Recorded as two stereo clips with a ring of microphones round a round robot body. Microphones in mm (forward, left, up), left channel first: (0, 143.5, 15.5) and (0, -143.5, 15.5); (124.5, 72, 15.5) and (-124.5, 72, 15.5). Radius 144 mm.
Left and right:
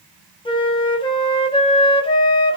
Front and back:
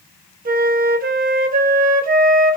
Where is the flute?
155° left, 0.7 m.